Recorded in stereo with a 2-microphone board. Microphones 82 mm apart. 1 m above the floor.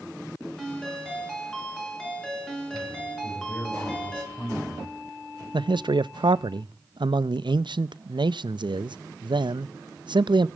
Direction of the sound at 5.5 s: 75° right (ahead or behind).